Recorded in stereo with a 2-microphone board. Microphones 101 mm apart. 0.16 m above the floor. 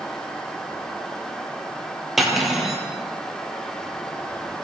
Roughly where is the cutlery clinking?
Centre.